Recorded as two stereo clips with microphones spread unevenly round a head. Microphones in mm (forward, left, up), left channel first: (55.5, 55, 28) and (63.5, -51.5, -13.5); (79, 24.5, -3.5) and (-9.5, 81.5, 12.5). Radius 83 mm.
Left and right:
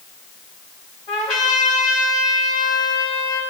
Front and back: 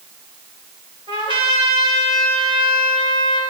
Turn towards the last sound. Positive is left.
turn(degrees=115)